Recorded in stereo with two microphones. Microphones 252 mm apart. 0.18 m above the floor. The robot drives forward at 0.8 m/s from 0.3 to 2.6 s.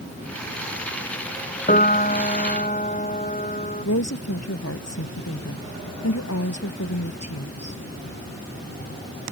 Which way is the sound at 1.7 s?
30° left (ahead or behind).